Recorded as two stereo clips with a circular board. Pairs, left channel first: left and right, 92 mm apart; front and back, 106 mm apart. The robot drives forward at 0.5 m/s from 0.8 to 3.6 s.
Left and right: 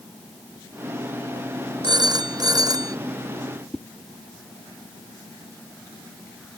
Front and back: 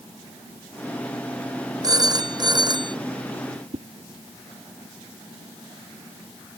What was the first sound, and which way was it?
A phone ringing, 130° right.